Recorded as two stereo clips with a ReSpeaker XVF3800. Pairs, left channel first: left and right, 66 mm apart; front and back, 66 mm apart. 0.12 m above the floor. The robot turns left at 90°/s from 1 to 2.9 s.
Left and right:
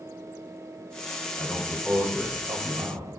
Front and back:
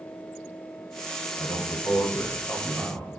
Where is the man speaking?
30° left, 6.5 m; by 3.1 s 110° right, 6.5 m.